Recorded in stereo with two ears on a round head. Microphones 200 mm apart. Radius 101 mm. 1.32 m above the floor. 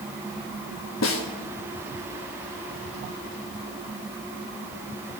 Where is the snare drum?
60° left (ahead or behind), 1.4 m.